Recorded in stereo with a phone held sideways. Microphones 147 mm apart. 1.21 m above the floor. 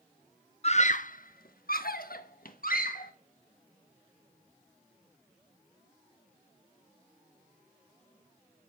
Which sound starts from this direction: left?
A scream, at 0.6 s.